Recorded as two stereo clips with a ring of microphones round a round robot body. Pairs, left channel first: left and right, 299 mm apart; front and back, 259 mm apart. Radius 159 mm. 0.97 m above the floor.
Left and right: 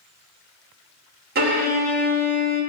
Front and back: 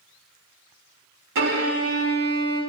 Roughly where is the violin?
Behind right.